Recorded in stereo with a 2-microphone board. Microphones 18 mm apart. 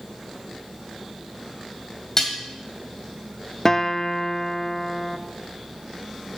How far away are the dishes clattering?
About 2.0 m.